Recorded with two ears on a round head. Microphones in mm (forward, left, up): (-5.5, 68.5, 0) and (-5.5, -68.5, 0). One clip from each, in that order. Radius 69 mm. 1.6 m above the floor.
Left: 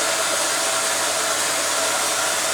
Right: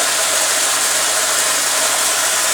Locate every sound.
0.0 s running water: 50° right (ahead or behind), 0.7 m